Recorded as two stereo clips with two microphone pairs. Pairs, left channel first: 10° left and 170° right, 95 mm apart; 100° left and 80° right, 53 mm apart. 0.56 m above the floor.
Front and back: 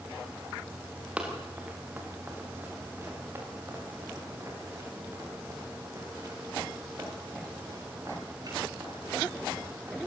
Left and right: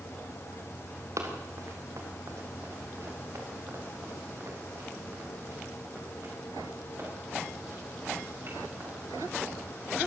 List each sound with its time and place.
1.2 s running footsteps: 95° right, 4 m; by 10.0 s 120° right, 12.5 m